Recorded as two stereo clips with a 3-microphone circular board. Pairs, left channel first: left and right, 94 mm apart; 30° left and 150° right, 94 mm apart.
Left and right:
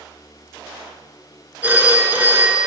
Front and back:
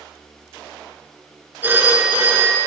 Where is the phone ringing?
130° right, 1.1 m.